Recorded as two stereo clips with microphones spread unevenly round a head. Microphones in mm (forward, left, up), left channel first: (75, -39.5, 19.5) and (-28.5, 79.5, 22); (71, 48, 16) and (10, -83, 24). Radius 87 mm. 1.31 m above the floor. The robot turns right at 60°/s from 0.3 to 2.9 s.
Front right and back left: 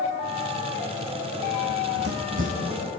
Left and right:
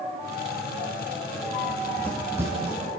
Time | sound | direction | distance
1.7 | running footsteps | 125° left | 3 m